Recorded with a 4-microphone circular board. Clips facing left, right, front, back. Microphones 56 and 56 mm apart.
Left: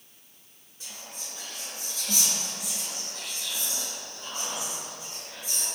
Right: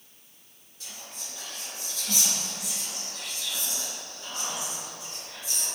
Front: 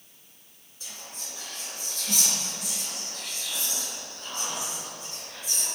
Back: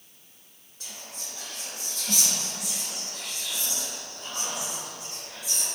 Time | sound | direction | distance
0.8 | whispering | 170° left | 1.6 m